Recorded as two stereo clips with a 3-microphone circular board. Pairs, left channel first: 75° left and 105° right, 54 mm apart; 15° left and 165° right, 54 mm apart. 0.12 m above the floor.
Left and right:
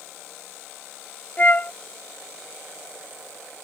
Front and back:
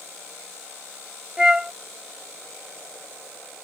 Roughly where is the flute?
Behind left.